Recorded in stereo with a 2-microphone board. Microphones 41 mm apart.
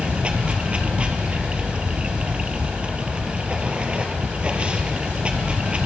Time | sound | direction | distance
0.0 | running water | 25° right (ahead or behind) | 1.7 m